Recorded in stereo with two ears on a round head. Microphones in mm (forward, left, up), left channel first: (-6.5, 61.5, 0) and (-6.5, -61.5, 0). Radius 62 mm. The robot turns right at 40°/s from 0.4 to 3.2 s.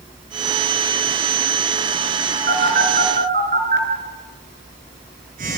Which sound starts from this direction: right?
A phone buzzing, at 2.5 s.